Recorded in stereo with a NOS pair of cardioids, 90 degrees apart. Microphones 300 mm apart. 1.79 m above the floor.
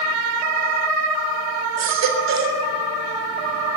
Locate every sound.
1.8 s a baby crying: 65° right, 3.5 m